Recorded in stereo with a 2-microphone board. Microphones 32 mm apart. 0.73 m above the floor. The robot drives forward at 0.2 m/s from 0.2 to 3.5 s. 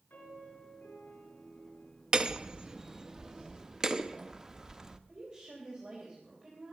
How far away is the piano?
About 5 m.